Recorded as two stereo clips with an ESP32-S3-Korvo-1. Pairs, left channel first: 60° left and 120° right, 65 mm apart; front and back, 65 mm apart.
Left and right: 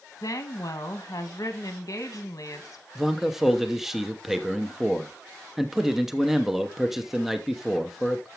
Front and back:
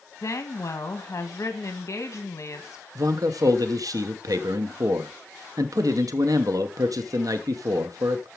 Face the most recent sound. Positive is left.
turn(degrees=155)